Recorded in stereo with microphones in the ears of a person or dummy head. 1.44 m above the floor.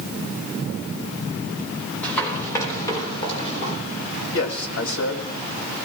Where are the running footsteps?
10° left (ahead or behind), 4.5 m; by 3.8 s 40° left (ahead or behind), 3.5 m.